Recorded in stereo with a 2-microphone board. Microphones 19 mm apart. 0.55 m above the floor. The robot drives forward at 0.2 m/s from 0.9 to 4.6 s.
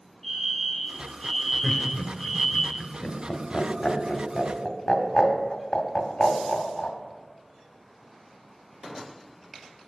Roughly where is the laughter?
Left.